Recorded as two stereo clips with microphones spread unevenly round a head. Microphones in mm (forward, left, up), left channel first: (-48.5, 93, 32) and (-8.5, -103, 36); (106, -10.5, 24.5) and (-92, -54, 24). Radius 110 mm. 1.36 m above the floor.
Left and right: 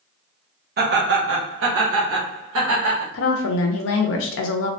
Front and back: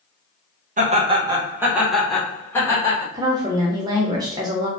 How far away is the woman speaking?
About 0.5 m.